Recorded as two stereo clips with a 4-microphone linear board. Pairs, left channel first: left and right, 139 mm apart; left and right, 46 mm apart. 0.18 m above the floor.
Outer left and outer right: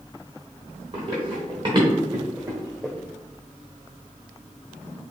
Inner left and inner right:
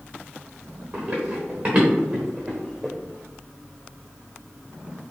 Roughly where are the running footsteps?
Right.